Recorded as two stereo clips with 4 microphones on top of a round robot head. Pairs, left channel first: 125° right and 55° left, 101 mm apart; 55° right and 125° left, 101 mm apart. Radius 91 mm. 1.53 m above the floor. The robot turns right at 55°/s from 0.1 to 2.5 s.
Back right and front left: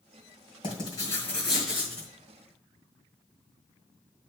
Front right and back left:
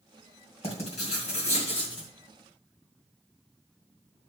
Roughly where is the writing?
Right.